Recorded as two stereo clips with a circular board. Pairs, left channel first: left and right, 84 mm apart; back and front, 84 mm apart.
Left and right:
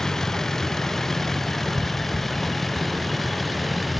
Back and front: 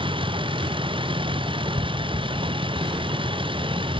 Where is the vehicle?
5° left; by 4.0 s straight ahead.